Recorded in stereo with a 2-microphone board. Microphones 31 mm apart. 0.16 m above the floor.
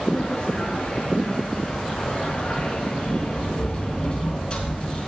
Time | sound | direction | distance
0.1 | a sliding door | 30° left (ahead or behind) | 2 m